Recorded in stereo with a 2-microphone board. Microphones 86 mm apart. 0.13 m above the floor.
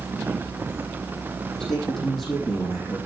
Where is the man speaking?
5° left (ahead or behind), 7 m; by 3.0 s centre (ahead or behind), 8.5 m.